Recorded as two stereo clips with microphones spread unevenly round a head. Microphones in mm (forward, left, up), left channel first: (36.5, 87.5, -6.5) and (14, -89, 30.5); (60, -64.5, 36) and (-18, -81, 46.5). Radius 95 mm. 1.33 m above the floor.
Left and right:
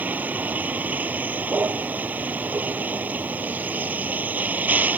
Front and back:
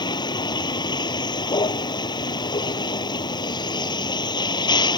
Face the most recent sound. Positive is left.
turn(degrees=-15)